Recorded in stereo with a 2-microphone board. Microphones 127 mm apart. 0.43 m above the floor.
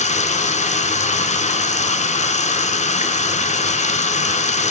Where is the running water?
70° left (ahead or behind), 0.9 m.